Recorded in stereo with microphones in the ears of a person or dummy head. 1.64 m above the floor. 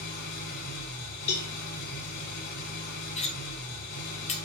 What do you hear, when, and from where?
0.0 s an engine running: 60° left (ahead or behind), 4.5 m
1.3 s a cowbell: 60° left (ahead or behind), 3.5 m
3.2 s cutlery clinking: 30° left (ahead or behind), 1.0 m